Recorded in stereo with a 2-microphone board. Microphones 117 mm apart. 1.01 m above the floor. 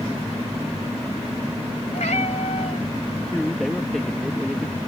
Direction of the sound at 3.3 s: 5° left (ahead or behind).